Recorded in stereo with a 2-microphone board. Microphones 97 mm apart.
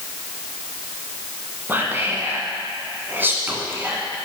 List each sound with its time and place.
1.7 s whispering: 25° right (ahead or behind), 1.2 m